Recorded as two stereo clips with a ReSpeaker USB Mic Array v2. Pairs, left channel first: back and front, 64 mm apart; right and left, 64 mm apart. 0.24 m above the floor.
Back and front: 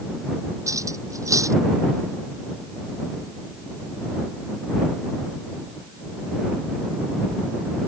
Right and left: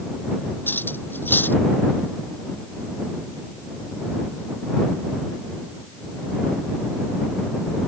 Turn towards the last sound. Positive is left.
turn(degrees=-35)